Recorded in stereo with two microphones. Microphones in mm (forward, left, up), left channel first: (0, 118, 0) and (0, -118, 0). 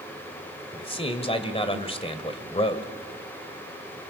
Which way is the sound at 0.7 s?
25° left (ahead or behind).